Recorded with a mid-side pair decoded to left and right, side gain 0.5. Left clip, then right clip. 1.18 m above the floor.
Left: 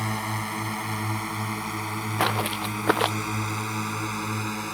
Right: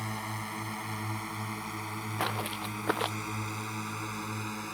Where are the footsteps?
45° left.